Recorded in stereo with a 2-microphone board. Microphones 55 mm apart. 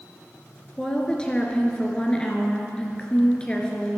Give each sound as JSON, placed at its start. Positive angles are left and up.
{"t": 0.8, "sound": "a woman speaking", "side_deg": 20, "distance_m": 3.0}